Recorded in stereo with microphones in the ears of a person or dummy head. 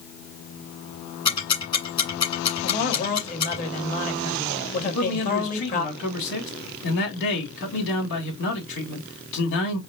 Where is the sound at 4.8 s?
65° left (ahead or behind), 2.5 m.